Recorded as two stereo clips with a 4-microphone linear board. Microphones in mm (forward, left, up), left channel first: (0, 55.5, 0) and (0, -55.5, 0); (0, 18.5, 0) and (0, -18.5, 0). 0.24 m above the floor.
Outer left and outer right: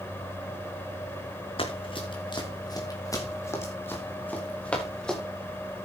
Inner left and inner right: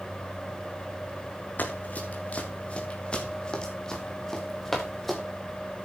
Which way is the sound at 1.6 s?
55° left (ahead or behind).